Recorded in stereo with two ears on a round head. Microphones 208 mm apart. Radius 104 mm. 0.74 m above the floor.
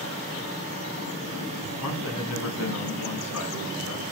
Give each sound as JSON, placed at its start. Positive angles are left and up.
{"t": 1.8, "sound": "a man speaking", "side_deg": 80, "distance_m": 6.0}